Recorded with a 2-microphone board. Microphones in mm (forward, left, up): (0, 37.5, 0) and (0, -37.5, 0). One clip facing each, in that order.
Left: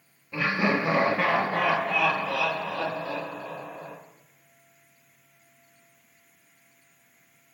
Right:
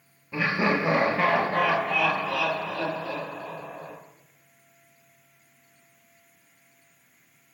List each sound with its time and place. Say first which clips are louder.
0.3 s laughter: right 1 dB; 15° right (ahead or behind), 2 m; by 4.0 s 30° left (ahead or behind), 2.5 m